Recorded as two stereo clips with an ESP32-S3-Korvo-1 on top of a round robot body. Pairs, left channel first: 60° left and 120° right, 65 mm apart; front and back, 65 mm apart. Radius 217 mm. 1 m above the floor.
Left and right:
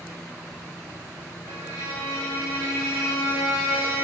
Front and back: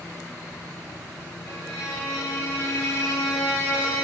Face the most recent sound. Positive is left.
turn(degrees=15)